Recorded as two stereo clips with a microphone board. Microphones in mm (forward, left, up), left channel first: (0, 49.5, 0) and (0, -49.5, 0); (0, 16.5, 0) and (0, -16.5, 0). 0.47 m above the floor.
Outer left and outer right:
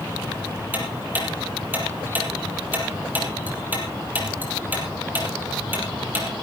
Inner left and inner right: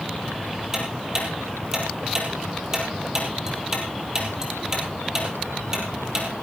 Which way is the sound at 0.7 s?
20° right (ahead or behind).